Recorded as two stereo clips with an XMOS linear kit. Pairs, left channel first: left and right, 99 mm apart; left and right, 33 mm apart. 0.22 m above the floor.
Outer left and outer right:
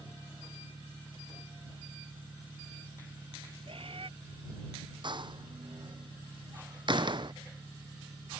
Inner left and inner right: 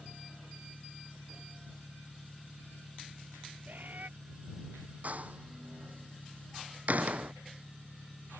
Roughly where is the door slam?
Right.